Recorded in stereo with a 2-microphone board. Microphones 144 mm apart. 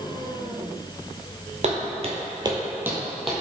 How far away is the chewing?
No chewing in this recording.